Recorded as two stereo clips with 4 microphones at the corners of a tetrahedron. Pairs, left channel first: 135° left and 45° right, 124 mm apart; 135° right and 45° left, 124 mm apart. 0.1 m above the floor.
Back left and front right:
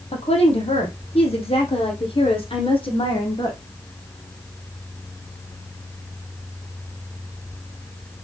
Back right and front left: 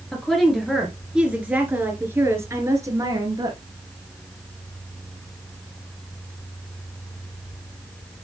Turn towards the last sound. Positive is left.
turn(degrees=95)